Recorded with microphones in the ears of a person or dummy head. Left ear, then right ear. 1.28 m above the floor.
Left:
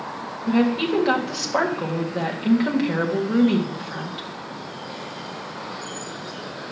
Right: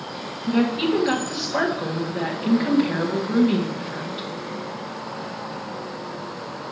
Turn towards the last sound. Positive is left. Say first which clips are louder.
# even
turn(degrees=25)  # may be behind; listen again after turning